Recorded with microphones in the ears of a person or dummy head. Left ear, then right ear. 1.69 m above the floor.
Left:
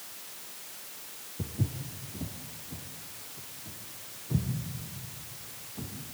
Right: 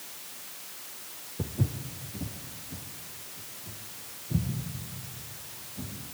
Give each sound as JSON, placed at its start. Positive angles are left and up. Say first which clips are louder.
{"t": 1.4, "sound": "footsteps", "louder": "right 3 dB", "side_deg": -25, "distance_m": 1.9}